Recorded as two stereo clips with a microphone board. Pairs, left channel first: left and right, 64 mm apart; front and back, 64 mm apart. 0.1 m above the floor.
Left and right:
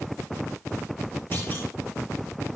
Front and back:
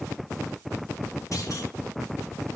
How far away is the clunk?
About 4.5 m.